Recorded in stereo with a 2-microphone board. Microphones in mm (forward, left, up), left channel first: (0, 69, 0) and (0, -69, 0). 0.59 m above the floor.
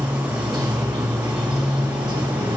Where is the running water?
30° right (ahead or behind), 1.0 m.